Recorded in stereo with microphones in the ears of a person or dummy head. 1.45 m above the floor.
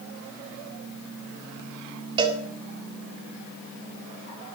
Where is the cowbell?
25° right (ahead or behind), 1.8 m.